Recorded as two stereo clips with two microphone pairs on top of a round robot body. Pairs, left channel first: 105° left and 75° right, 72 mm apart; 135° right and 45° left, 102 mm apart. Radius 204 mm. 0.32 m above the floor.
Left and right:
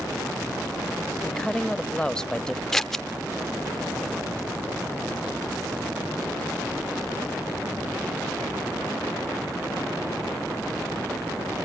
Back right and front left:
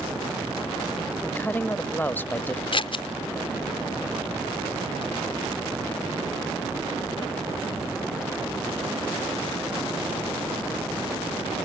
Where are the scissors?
170° right, 0.7 m.